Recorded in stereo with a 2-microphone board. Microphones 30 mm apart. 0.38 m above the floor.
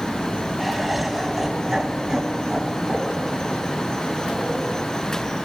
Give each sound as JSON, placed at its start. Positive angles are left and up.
{"t": 0.6, "sound": "laughter", "side_deg": 0, "distance_m": 2.0}